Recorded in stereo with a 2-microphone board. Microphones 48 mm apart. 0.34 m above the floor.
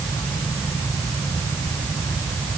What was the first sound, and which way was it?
Only background noise.